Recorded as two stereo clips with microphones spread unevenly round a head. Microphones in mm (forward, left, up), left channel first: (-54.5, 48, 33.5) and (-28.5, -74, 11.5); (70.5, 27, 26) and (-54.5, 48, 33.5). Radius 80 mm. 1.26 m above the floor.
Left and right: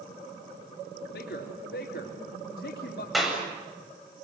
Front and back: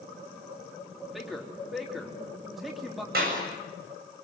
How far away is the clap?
About 7.5 m.